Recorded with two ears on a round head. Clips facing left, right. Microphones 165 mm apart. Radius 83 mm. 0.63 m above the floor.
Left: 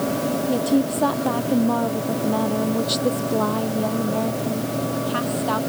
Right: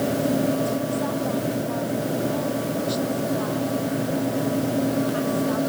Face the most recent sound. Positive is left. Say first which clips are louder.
# left 4 dB
turn(degrees=70)  # may be behind; listen again after turning